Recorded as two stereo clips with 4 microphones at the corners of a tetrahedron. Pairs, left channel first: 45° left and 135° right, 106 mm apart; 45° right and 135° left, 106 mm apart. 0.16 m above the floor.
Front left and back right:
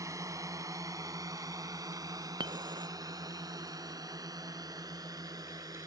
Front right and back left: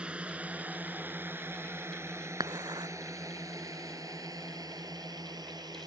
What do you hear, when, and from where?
0.0 s a drone: 155° right; by 5.9 s straight behind
2.4 s dishes clattering: 175° right